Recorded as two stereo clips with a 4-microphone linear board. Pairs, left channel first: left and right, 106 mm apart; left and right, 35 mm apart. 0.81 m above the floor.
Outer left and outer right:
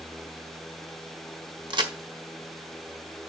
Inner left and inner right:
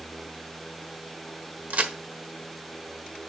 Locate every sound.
1.7 s a crack: 45° right (ahead or behind), 1.4 m